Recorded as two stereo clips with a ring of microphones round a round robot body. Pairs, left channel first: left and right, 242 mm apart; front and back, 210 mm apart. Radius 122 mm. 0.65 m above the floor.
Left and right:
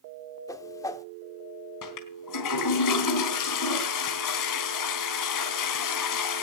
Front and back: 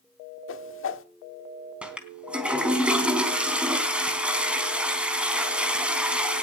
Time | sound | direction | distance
0.5 | a whoosh | 15° left | 1.4 m
1.8 | a toilet flushing | 95° left | 3.5 m